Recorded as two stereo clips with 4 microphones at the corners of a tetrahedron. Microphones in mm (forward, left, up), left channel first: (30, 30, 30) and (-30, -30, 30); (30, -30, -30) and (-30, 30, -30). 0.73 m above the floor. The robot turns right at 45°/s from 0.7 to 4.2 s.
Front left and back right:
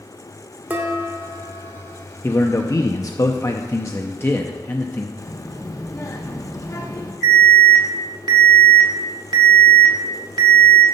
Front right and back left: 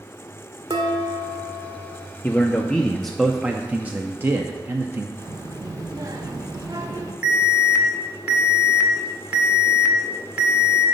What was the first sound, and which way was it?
Dishes clattering, 155° left.